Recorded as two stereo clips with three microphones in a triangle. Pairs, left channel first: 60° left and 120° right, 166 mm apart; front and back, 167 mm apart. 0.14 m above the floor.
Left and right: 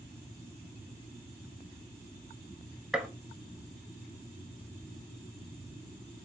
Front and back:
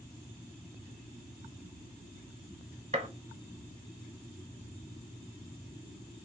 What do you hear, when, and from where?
2.9 s a gunshot: 155° left, 0.6 m